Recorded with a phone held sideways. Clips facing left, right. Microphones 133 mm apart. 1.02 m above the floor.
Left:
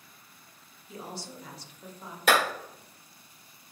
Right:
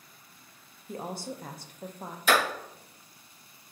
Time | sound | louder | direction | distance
0.9 | a woman speaking | right 5 dB | 50° right (ahead or behind) | 0.6 m
2.3 | a clap | left 1 dB | 65° left (ahead or behind) | 2.5 m